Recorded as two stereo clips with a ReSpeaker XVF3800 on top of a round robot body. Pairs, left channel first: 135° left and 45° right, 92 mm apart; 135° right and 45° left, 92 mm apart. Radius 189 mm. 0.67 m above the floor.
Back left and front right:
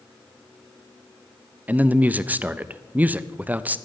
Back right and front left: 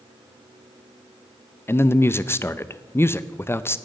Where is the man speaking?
100° right, 0.7 m.